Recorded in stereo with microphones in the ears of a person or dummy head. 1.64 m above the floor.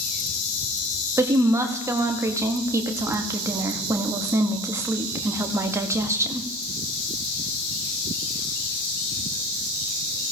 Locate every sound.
1.2 s a woman speaking: 15° right (ahead or behind), 1.0 m